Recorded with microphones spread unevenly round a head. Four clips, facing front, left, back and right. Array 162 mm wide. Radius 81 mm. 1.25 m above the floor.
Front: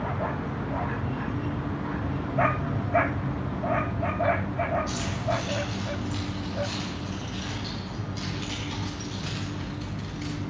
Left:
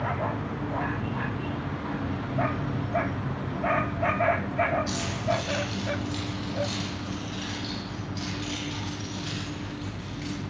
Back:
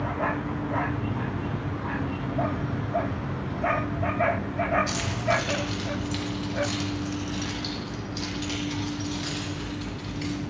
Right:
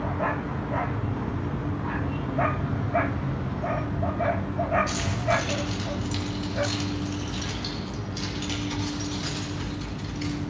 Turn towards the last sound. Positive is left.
turn(degrees=-90)